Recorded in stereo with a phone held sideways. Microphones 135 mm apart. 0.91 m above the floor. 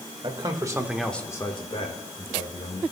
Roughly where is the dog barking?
I don't hear a dog barking.